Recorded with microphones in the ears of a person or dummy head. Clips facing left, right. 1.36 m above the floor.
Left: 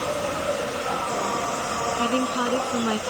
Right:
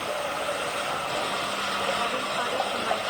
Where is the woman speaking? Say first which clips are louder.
Left 6 dB; 55° left (ahead or behind).